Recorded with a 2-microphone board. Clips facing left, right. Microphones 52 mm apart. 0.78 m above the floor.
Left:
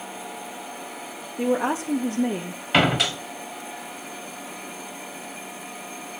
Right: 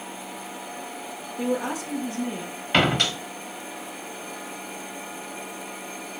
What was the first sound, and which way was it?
A woman speaking, 15° left (ahead or behind).